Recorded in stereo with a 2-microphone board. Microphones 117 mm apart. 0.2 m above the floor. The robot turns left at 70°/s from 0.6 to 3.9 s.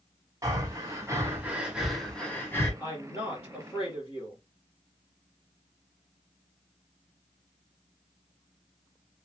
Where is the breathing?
30° right (ahead or behind), 1.2 m; by 2.7 s 20° left (ahead or behind), 1.2 m.